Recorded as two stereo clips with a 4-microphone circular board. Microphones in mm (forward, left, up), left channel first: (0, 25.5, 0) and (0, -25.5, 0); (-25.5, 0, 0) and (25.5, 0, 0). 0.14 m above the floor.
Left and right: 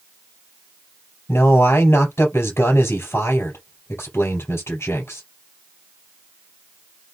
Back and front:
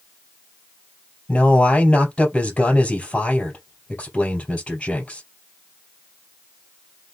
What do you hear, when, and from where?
1.3 s a man speaking: 110° left, 3.5 m